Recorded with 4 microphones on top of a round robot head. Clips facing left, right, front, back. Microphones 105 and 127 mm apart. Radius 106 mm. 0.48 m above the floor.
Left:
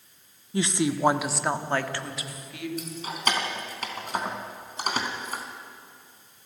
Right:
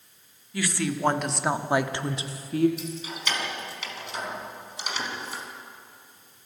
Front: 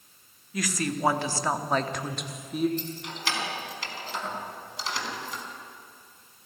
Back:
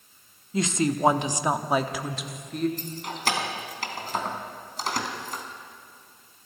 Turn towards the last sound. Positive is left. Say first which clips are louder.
# left 2 dB, back 3 dB
turn(degrees=135)